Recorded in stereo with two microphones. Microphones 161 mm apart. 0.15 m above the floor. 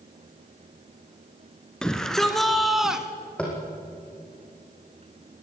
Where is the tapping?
5° left (ahead or behind), 5 m.